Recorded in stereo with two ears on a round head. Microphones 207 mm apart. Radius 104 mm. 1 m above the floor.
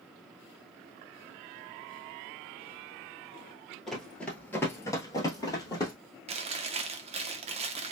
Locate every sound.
3.9 s running footsteps: centre (ahead or behind), 1.1 m; by 5.9 s 15° left (ahead or behind), 1.5 m
6.3 s chewing: 25° right (ahead or behind), 0.6 m